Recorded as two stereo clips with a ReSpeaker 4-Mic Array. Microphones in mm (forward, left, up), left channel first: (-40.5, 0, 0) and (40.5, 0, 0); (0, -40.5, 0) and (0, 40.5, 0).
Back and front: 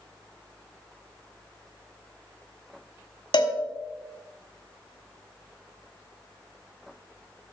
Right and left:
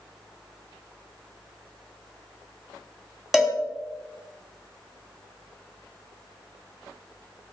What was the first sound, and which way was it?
A cowbell, 175° left.